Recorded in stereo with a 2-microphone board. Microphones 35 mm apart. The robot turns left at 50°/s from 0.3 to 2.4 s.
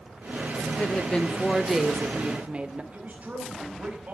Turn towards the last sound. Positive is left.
turn(degrees=-45)  # may be behind; listen again after turning